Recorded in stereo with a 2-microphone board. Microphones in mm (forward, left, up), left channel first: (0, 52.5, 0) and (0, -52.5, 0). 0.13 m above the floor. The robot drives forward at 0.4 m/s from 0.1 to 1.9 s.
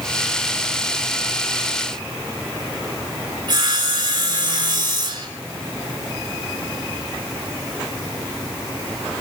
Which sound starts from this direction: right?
Sawing, at 3.5 s.